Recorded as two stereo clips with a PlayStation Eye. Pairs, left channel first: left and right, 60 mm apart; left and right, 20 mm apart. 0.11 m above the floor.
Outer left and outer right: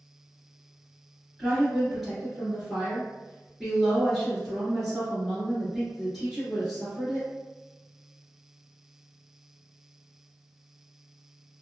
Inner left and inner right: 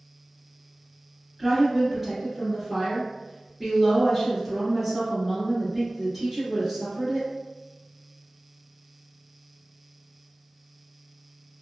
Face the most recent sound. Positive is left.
turn(degrees=0)  # may be behind; listen again after turning